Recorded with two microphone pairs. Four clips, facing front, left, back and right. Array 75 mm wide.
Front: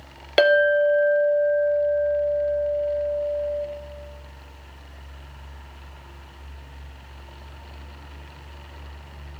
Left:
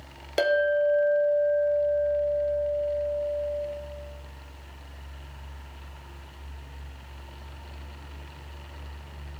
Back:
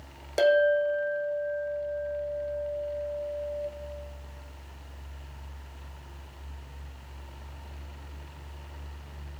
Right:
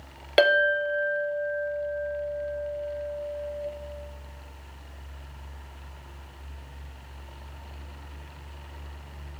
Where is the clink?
35° right, 0.8 m.